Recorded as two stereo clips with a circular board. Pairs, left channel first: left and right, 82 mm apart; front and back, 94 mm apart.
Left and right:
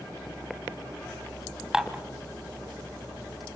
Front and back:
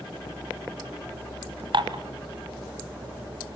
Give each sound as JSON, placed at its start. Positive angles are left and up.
{"t": 1.7, "sound": "dishes clattering", "azimuth_deg": -170, "distance_m": 1.4}